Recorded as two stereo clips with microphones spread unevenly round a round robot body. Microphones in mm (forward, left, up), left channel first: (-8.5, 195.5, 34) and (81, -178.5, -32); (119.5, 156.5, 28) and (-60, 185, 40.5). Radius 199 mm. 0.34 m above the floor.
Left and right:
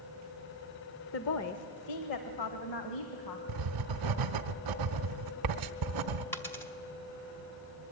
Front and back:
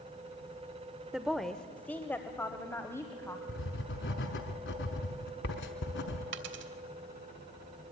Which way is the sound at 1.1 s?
80° left.